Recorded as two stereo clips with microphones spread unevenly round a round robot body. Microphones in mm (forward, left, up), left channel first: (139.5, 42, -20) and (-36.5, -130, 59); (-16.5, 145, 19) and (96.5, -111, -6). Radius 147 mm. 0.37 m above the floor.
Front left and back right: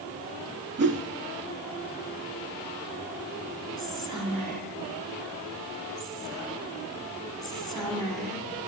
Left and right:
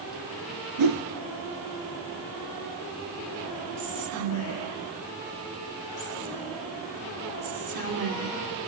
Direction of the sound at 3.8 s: 40° right.